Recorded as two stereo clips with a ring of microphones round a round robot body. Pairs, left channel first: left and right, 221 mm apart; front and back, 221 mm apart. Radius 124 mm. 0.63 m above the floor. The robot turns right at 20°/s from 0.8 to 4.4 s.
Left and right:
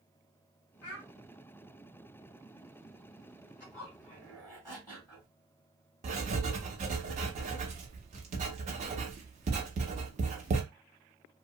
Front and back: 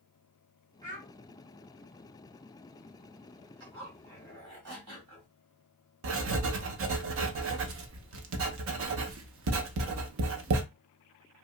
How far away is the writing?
About 0.6 m.